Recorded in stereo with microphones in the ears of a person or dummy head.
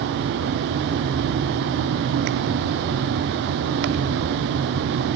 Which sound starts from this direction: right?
A fan, at 0.0 s.